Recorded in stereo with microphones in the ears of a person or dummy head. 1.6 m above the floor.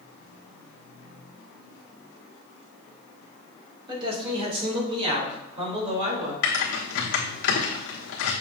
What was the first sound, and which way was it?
A man speaking, 20° right (ahead or behind).